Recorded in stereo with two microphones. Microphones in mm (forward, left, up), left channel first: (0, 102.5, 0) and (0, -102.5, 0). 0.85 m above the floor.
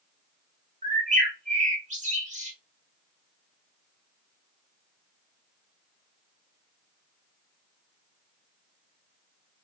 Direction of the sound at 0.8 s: 35° right (ahead or behind).